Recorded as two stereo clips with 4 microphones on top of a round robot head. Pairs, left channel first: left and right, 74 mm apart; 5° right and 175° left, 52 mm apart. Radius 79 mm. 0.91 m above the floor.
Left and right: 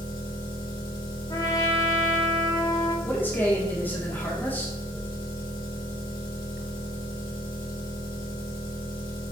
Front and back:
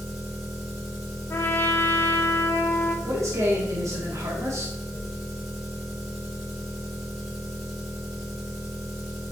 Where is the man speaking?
155° left, 1.7 m.